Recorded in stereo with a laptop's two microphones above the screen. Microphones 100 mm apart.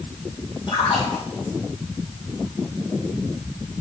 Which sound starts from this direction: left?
A splash, at 0.7 s.